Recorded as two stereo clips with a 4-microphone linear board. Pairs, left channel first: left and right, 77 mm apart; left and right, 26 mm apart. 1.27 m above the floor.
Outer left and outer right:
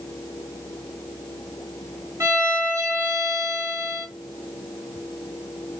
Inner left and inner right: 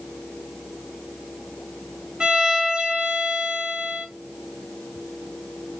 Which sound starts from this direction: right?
A violin, at 2.2 s.